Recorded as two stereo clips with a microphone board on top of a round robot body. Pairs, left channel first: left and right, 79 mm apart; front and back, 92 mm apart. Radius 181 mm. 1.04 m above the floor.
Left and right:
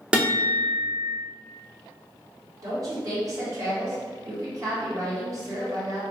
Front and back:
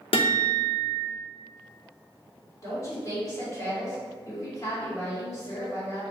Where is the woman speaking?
50° right, 1.6 m.